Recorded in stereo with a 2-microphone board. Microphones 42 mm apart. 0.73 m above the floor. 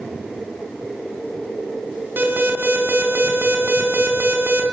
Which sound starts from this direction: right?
An alarm, at 2.2 s.